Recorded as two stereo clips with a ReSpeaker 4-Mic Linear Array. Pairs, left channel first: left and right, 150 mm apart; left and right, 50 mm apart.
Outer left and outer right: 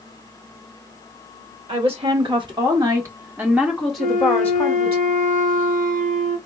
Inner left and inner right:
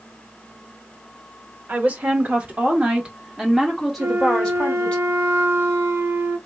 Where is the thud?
I don't hear a thud.